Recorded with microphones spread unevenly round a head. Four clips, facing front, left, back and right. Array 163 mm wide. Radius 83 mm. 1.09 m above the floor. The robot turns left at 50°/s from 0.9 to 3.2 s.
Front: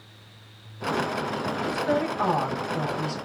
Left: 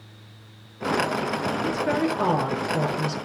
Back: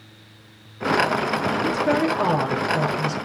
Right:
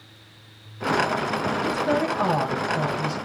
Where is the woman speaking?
165° left, 5 m; by 3.1 s 90° left, 5 m.